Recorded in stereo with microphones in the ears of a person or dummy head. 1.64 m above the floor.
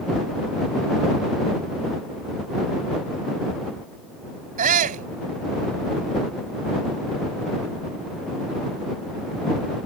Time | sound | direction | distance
4.6 | a shout | 40° right (ahead or behind) | ?